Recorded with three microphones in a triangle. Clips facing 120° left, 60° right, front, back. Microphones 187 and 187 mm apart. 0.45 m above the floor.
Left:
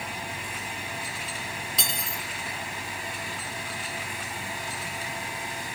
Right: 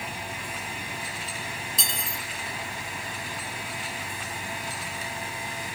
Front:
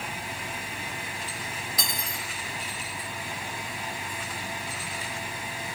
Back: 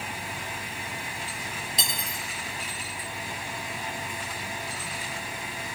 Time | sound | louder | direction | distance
1.8 | cutlery clinking | left 1 dB, even | 115° left | 0.9 m